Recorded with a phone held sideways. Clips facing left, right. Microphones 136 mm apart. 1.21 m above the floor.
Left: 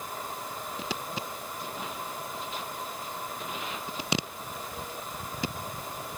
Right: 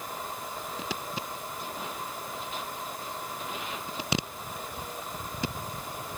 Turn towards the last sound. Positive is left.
No sound to turn to.